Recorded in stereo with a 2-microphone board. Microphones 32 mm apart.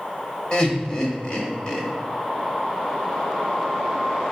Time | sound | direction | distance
0.5 | laughter | 35° left (ahead or behind) | 1.7 m